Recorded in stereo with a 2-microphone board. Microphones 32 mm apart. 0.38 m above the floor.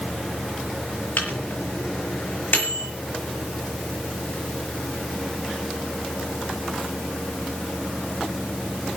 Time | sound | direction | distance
1.2 | a microwave | 70° left (ahead or behind) | 6 m